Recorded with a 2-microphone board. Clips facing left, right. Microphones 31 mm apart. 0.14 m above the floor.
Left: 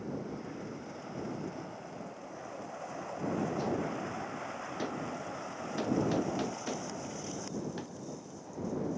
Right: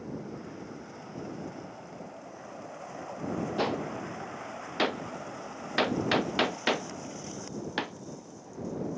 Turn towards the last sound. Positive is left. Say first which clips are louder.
# right 3 dB
turn(degrees=-65)  # may be behind; listen again after turning